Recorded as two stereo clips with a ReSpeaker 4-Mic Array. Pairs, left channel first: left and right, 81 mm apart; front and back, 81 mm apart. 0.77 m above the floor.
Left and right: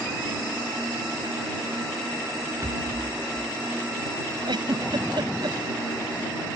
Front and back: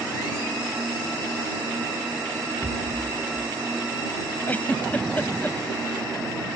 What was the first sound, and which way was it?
A rattle, 55° right.